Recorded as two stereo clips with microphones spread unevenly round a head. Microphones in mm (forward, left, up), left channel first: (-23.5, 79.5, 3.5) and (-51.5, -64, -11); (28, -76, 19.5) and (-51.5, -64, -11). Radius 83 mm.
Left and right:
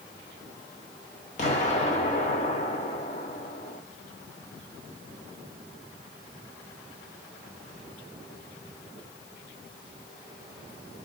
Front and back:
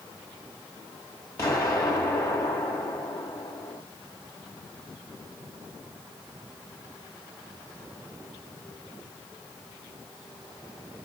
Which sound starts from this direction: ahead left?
An explosion, at 1.4 s.